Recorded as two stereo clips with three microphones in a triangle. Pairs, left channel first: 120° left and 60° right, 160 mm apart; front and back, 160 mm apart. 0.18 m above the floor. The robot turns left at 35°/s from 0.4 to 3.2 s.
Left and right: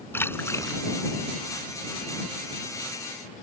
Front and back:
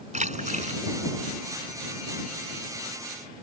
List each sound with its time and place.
0.1 s a splash: 170° right; by 0.8 s 175° left